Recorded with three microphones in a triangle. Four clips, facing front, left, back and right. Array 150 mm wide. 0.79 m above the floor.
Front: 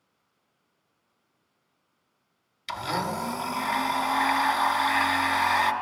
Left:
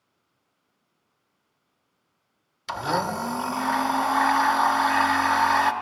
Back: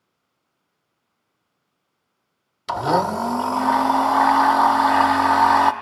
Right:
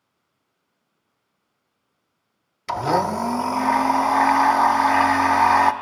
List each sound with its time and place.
2.7 s a blender: 145° right, 0.6 m